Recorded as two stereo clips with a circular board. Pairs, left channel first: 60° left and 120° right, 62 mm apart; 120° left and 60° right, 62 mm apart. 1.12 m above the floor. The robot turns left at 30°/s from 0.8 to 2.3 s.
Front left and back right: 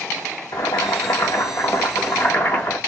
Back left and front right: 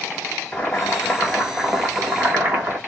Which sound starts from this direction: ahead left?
Boiling, at 0.5 s.